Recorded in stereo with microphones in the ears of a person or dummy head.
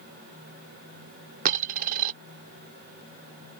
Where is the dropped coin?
45° right (ahead or behind).